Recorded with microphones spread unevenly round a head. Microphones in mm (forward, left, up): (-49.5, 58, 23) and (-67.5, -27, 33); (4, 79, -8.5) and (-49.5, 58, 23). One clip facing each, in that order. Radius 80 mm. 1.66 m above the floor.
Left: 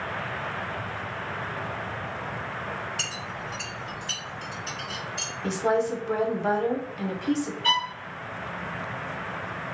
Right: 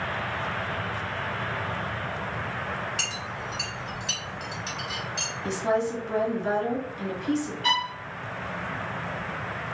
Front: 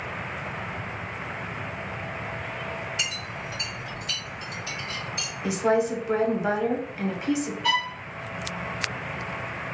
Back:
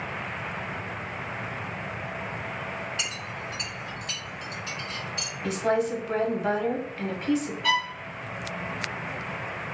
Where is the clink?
75° right, 1.5 m.